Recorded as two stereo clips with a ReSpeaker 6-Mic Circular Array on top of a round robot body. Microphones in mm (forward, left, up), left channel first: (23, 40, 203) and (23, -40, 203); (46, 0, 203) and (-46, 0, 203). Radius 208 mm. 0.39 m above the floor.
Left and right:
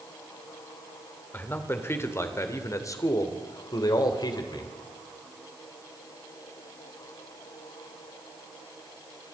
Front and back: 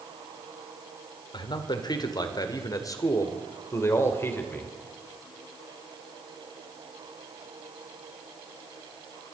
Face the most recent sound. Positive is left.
turn(degrees=65)